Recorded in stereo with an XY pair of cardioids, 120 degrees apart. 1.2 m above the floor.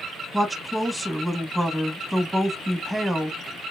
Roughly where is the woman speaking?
Ahead.